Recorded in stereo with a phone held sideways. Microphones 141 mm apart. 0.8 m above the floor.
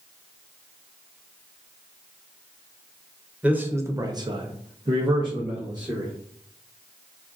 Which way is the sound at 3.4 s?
10° right (ahead or behind).